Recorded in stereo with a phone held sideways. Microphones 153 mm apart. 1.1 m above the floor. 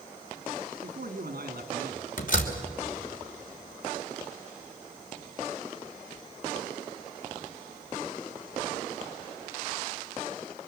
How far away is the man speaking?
About 1.9 m.